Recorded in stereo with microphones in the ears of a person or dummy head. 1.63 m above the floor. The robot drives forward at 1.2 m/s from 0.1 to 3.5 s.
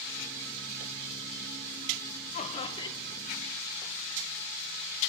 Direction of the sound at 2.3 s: 45° left (ahead or behind).